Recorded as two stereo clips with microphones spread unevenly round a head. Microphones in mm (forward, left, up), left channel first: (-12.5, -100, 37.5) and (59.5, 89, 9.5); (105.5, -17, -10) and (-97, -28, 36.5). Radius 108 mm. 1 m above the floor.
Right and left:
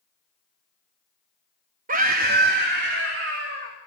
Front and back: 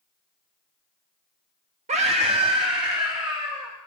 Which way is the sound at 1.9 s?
115° left.